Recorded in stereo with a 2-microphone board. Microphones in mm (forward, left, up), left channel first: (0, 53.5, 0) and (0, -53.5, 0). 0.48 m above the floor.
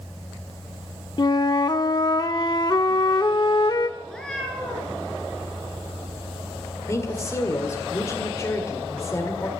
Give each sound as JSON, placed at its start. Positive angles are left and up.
{"t": 1.2, "sound": "a flute", "side_deg": 40, "distance_m": 0.7}
{"t": 4.0, "sound": "a cat meowing", "side_deg": 5, "distance_m": 3.0}
{"t": 6.9, "sound": "a woman speaking", "side_deg": 30, "distance_m": 1.7}